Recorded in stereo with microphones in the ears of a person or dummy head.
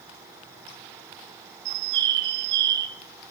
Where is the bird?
65° right (ahead or behind), 2.5 m.